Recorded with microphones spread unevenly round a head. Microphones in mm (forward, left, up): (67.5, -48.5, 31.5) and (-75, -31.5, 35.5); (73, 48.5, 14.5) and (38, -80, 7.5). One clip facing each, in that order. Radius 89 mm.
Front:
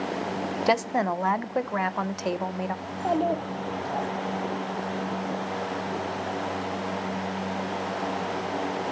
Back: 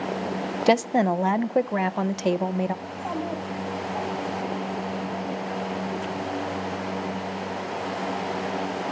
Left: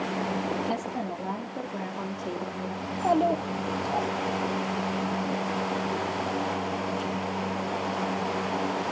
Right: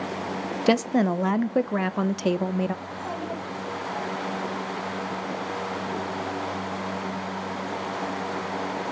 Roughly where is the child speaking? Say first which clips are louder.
Front 5 dB, left 9 dB; ahead left.